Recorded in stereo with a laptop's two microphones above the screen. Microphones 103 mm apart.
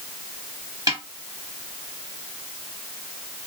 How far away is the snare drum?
About 1.8 m.